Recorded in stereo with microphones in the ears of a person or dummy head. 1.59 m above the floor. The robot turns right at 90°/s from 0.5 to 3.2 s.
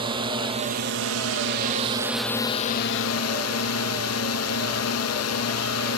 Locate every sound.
0.0 s a drone: 160° right; by 6.0 s 85° left